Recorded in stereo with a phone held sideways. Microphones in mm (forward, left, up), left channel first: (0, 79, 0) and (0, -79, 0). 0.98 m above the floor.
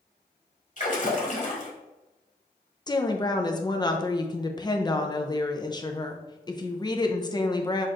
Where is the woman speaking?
25° left (ahead or behind), 0.5 m.